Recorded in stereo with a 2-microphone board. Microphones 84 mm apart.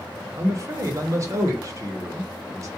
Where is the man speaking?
40° right (ahead or behind), 0.8 m.